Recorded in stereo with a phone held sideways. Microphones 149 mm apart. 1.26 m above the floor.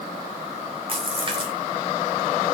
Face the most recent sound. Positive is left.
turn(degrees=-35)  # may be behind; listen again after turning